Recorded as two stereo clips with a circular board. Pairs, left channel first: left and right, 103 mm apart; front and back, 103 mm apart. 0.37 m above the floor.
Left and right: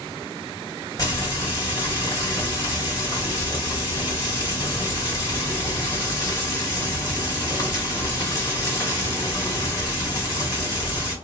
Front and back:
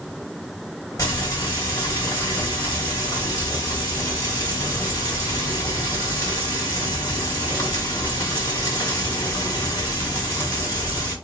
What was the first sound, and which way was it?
Frying, 45° left.